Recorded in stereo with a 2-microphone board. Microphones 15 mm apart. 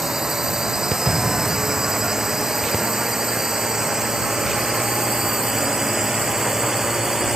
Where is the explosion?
40° right (ahead or behind).